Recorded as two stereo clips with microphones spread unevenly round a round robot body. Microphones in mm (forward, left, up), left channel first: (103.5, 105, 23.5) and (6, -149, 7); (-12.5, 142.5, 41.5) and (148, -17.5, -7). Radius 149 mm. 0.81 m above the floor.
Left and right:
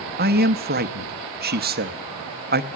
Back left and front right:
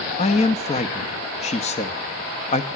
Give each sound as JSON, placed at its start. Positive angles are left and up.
{"t": 0.2, "sound": "a man speaking", "azimuth_deg": -155, "distance_m": 0.8}